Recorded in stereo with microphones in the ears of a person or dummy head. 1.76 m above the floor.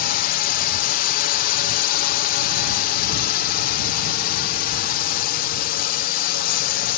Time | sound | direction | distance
0.0 | a drone | 55° left (ahead or behind) | ?